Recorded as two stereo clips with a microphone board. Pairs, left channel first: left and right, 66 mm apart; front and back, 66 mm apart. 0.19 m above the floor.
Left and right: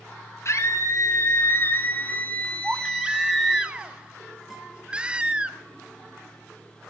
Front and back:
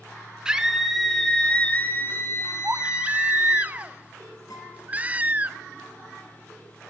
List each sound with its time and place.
0.5 s a scream: 105° left, 2 m; by 3.6 s 5° left, 2.5 m
2.6 s a baby crying: 140° right, 0.7 m
4.5 s a guitar: 5° right, 3.5 m